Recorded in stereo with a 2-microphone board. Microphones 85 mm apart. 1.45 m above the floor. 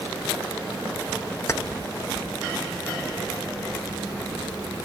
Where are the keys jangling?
30° left (ahead or behind), 0.5 m.